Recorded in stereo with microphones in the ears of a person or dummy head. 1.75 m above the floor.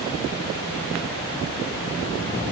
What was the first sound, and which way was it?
Only background noise.